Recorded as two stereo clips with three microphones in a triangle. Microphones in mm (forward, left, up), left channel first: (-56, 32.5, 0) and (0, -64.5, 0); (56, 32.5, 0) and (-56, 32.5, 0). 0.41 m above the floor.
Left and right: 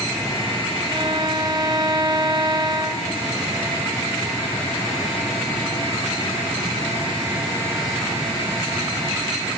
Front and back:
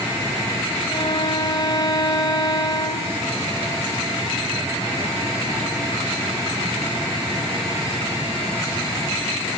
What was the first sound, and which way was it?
A violin, 25° right.